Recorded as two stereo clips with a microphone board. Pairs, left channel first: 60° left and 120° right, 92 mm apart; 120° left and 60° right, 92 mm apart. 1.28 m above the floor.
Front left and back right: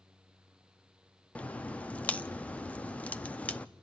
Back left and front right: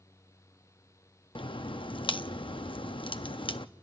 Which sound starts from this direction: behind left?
A crack, at 1.4 s.